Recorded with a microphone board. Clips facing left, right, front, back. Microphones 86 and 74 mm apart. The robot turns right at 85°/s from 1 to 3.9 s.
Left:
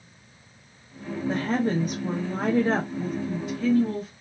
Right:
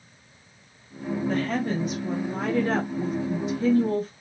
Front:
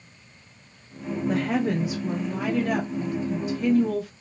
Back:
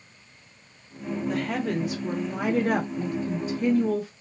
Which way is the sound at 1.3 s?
25° left.